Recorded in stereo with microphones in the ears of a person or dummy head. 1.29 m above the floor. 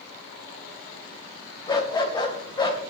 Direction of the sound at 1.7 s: 20° left (ahead or behind).